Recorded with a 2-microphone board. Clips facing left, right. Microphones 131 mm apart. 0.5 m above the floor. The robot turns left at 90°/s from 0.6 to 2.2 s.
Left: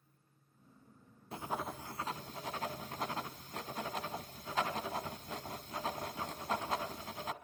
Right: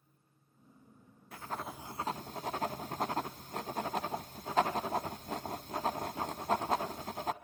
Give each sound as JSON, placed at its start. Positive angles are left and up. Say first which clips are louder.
{"t": 1.3, "sound": "writing", "louder": "left 2 dB", "side_deg": 30, "distance_m": 0.8}